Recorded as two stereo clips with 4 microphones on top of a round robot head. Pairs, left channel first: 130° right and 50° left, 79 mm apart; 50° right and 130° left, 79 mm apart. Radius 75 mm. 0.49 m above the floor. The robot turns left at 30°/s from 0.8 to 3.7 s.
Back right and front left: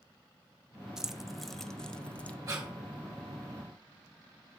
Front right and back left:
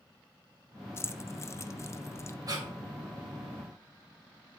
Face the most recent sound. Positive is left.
turn(degrees=65)